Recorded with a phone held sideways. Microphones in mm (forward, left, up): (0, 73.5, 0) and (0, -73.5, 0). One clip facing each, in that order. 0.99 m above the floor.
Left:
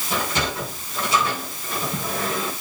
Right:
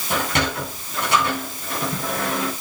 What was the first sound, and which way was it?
A sliding door, 75° right (ahead or behind).